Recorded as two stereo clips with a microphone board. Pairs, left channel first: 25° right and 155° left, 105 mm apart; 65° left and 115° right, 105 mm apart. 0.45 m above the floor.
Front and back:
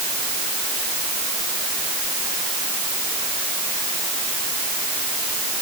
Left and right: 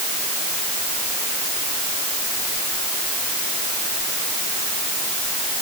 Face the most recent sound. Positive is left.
No sound to turn to.